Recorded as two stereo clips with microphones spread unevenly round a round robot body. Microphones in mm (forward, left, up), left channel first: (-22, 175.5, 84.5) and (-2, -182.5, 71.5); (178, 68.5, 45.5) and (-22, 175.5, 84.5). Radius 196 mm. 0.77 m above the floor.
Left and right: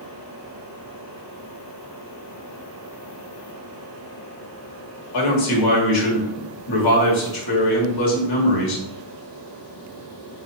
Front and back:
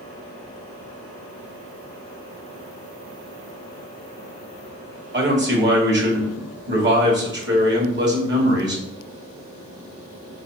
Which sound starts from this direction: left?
A man speaking, at 5.1 s.